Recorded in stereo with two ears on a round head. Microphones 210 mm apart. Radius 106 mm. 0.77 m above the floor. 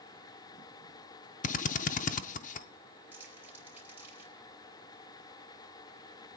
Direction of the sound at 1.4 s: 35° left (ahead or behind).